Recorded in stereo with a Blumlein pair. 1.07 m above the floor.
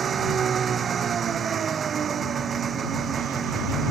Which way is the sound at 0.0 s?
20° right.